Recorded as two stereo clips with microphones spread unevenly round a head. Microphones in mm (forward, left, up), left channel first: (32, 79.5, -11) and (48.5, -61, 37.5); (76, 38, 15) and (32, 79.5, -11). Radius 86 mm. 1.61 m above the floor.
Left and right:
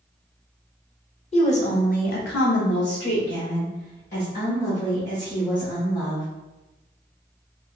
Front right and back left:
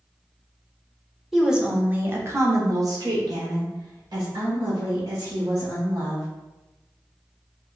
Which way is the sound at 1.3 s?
45° left.